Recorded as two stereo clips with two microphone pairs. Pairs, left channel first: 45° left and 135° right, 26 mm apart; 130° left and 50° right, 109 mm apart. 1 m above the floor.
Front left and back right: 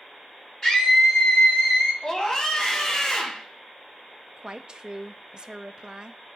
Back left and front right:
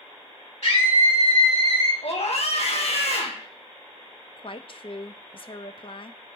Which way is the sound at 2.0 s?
110° left.